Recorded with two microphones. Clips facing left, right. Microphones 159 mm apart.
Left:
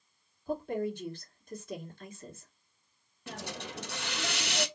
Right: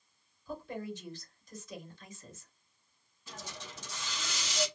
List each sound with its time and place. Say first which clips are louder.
0.5 s a woman speaking: left 7 dB; 55° left (ahead or behind), 2 m
3.3 s a hiss: left 6 dB; 70° left (ahead or behind), 0.7 m